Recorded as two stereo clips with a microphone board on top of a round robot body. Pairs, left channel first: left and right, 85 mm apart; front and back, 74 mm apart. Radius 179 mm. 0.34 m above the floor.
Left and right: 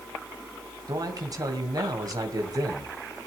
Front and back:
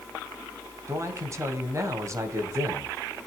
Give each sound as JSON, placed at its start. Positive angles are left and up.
{"t": 0.9, "sound": "a man speaking", "azimuth_deg": -130, "distance_m": 2.5}